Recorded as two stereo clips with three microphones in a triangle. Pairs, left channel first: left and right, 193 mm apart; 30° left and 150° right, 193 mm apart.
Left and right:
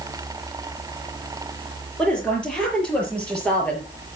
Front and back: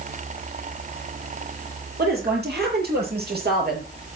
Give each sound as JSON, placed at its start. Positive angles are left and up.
{"t": 2.0, "sound": "a woman speaking", "azimuth_deg": 175, "distance_m": 7.0}